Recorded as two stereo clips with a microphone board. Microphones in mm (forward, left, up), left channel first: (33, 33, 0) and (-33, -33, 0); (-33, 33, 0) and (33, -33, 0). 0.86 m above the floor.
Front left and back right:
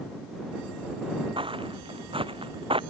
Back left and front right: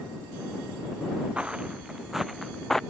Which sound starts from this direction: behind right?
Footsteps, at 1.4 s.